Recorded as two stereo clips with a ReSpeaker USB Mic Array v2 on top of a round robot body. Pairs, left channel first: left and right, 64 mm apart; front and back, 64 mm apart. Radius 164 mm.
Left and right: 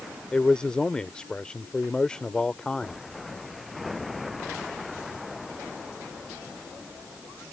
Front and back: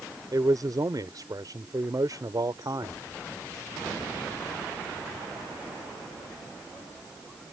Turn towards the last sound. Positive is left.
turn(degrees=170)